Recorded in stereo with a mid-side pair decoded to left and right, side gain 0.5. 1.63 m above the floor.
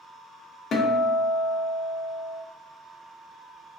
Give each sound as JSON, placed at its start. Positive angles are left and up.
{"t": 0.7, "sound": "a guitar", "azimuth_deg": 50, "distance_m": 0.6}